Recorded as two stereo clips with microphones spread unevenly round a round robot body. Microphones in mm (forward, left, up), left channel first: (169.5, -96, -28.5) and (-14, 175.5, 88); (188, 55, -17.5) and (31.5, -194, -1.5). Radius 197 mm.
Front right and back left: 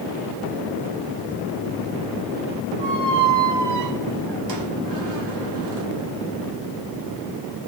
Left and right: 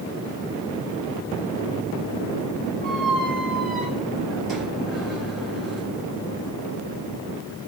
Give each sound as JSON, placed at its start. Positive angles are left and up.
{"t": 2.8, "sound": "a squeak", "azimuth_deg": 145, "distance_m": 0.8}